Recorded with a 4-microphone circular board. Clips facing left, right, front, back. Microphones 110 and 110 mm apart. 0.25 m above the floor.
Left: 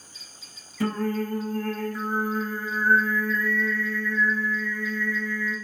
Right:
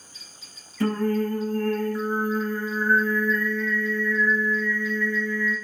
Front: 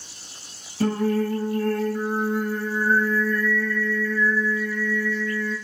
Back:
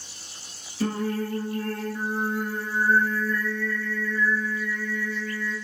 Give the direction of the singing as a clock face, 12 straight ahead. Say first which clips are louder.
Right 3 dB, front 5 dB; 11 o'clock.